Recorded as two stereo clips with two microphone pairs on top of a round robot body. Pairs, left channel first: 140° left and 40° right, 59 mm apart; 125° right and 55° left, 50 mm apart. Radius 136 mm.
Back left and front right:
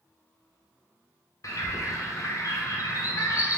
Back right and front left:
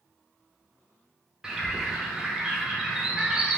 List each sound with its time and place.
1.4 s a bird: 130° left, 0.9 m